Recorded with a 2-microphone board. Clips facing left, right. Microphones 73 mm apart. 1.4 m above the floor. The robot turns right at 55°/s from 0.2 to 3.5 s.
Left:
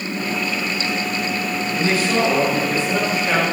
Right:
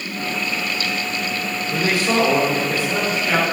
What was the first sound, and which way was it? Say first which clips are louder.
A man speaking: right 1 dB; 75° right.